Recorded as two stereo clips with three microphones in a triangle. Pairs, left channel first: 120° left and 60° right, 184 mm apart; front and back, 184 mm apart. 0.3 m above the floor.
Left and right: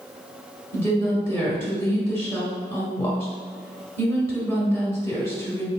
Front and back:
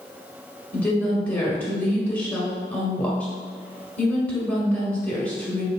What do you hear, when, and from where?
0.7 s a woman speaking: 65° left, 1.3 m